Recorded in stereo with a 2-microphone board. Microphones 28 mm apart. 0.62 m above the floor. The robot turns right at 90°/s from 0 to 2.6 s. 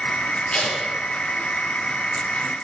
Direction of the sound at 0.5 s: 35° left (ahead or behind).